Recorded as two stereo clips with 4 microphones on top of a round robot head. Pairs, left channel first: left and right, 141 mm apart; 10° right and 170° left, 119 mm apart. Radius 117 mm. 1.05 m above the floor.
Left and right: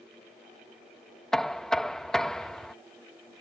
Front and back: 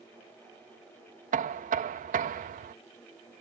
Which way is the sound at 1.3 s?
175° left.